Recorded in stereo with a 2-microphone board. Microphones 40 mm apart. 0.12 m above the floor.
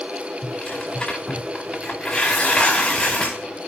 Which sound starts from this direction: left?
Tearing paper, at 0.4 s.